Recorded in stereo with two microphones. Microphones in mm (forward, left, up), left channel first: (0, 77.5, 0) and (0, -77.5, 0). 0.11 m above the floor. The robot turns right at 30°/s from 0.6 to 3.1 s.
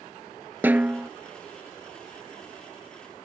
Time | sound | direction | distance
0.6 | a snare drum | 15° right (ahead or behind) | ?